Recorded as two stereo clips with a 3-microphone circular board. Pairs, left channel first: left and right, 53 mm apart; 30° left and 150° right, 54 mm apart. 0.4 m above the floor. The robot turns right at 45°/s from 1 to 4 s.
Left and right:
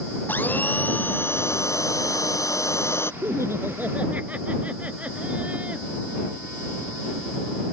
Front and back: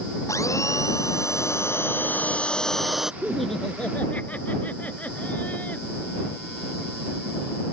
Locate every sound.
0.3 s a blender: 35° left; by 3.1 s 130° left
3.2 s laughter: 65° right; by 5.9 s 30° right